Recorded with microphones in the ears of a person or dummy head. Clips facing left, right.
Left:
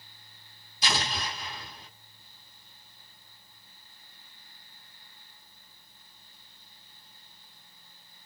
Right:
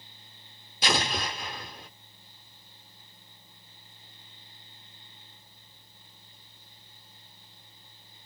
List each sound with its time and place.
0.8 s an explosion: 50° right (ahead or behind), 1.4 m